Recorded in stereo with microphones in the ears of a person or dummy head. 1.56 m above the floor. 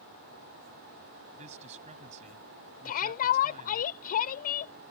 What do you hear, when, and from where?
1.3 s a man speaking: 35° right (ahead or behind)
2.9 s a shout: 45° left (ahead or behind)